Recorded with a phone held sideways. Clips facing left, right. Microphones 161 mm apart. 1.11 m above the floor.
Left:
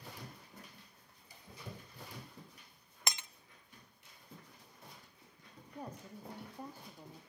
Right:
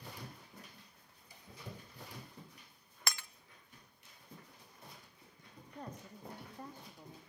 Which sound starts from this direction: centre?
A woman speaking, at 5.8 s.